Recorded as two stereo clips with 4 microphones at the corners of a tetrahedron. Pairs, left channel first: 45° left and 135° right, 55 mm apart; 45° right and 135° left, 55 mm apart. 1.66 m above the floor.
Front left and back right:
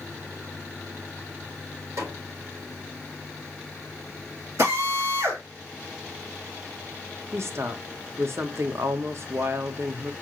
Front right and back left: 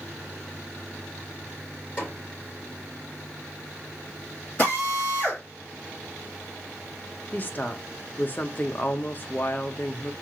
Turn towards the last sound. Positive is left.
turn(degrees=-100)